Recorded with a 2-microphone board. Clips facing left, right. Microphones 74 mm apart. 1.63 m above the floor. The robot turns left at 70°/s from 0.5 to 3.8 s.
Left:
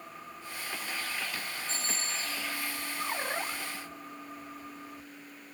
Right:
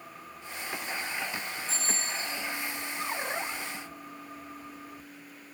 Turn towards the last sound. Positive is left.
turn(degrees=120)